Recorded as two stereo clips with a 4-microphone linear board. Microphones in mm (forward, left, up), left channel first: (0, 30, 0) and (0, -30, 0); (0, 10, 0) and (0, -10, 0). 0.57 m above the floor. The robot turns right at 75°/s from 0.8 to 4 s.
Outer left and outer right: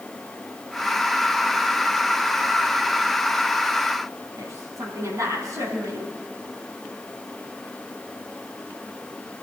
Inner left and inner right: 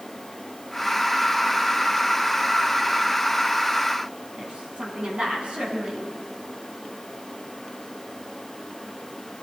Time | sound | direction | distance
4.4 | a woman speaking | 60° right (ahead or behind) | 5 m